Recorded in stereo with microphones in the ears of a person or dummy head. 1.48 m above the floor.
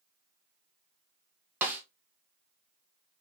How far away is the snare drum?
About 0.9 m.